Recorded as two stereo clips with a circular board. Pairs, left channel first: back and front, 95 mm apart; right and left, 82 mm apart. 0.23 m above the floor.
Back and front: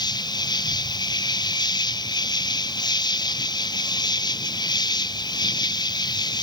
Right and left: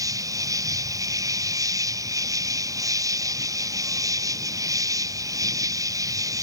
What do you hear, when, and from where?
0.0 s an insect: 135° left